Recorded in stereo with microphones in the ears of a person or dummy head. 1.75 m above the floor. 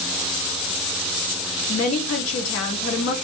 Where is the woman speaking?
65° left (ahead or behind), 1.0 m.